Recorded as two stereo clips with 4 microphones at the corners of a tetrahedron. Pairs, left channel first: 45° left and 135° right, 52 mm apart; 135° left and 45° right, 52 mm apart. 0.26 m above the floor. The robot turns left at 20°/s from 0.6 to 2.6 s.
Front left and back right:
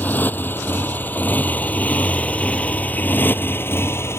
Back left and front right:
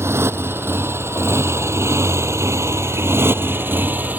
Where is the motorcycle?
10° right; by 4.2 s 10° left.